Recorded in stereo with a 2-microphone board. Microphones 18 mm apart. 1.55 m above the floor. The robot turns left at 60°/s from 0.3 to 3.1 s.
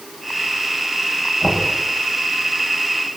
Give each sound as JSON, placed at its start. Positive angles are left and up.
{"t": 1.4, "sound": "knocking", "side_deg": 25, "distance_m": 8.5}